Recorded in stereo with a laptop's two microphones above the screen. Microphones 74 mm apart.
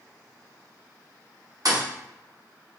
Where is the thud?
60° right (ahead or behind), 1.0 m.